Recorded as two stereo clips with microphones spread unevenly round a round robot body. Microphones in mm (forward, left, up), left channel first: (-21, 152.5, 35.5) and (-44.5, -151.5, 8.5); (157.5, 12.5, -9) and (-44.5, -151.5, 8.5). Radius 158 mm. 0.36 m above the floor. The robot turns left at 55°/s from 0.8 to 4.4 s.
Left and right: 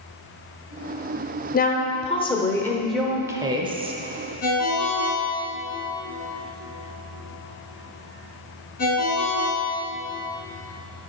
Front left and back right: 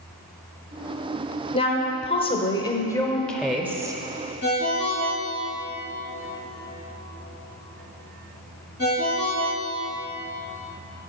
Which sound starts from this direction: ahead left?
A woman speaking, at 1.5 s.